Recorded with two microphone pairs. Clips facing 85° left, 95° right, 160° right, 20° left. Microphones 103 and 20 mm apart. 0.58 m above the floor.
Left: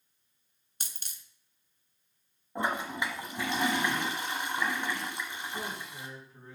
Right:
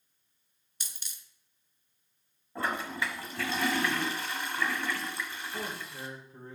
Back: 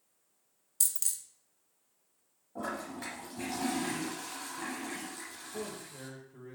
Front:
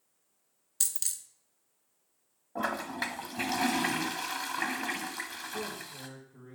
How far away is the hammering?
I don't hear hammering.